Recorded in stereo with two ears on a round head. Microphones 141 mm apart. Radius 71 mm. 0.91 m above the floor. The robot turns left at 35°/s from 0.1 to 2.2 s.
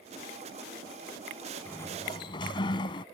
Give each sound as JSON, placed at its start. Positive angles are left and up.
{"t": 1.6, "sound": "a sliding door", "side_deg": 10}